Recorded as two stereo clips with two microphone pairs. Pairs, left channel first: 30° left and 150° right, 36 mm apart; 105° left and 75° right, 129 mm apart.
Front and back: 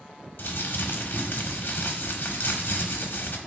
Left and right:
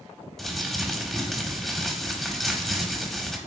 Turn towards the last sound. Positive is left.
turn(degrees=15)